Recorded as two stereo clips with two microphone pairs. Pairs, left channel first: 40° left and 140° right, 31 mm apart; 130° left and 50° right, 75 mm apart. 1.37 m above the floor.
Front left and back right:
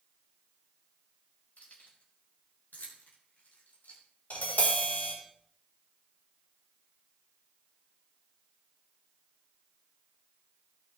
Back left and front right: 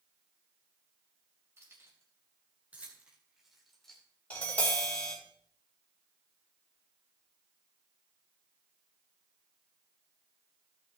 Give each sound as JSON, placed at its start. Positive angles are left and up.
{"t": 1.6, "sound": "keys jangling", "azimuth_deg": 5, "distance_m": 4.5}
{"t": 4.3, "sound": "tapping", "azimuth_deg": 60, "distance_m": 4.5}